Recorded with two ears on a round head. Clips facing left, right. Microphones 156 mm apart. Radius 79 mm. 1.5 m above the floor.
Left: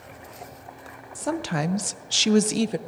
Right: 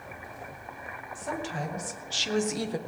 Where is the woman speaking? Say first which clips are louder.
Left 7 dB; 60° left (ahead or behind), 0.8 m; by 2.8 s 25° left (ahead or behind), 0.6 m.